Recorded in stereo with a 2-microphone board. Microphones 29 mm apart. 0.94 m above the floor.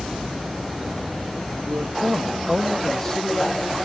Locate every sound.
1.6 s a man speaking: 75° right (ahead or behind), 0.9 m; by 3.8 s 30° left (ahead or behind), 1.8 m